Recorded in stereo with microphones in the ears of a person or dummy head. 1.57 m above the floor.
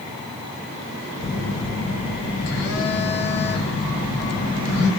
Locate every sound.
1.2 s a phone buzzing: 20° left (ahead or behind), 0.9 m